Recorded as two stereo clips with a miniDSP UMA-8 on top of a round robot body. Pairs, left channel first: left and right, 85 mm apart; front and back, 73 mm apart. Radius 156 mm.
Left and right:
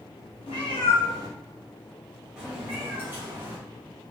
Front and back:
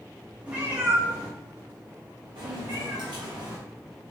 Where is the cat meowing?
110° left, 0.8 m; by 3.6 s 150° right, 1.2 m.